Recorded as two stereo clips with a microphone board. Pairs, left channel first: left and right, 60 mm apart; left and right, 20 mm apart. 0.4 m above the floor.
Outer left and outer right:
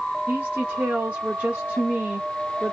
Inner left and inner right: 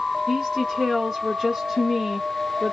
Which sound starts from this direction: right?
A woman speaking, at 0.3 s.